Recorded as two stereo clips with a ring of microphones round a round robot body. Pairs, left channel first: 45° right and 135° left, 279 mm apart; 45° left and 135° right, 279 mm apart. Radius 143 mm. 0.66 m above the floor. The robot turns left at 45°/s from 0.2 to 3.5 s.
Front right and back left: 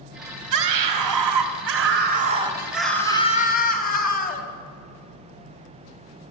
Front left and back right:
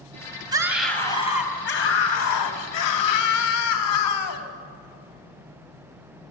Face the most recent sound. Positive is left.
turn(degrees=15)